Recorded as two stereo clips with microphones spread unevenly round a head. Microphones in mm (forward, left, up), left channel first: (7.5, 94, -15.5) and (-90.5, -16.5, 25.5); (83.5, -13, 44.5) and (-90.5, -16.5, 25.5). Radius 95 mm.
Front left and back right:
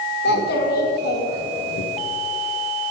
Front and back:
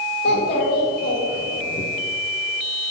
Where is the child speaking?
40° left, 2 m; by 1.8 s 60° left, 1.1 m.